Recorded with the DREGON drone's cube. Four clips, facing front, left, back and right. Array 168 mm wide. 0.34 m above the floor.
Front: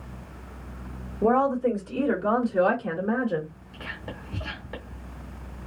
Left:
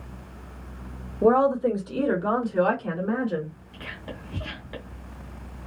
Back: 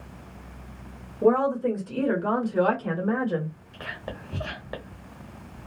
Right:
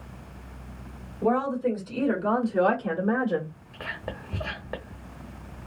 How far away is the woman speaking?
About 1.6 m.